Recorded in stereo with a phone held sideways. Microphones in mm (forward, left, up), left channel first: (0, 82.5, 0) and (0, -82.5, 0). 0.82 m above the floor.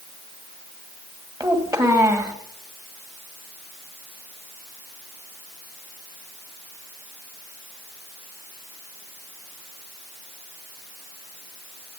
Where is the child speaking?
20° right (ahead or behind), 2.0 m.